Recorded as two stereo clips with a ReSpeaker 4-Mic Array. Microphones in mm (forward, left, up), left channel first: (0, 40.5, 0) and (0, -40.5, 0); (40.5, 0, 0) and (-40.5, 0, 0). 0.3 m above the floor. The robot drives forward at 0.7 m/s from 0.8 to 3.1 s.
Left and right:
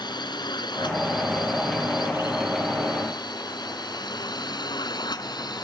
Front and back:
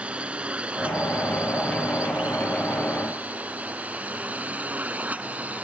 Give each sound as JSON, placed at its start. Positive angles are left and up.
{"t": 0.0, "sound": "a drone", "azimuth_deg": 105}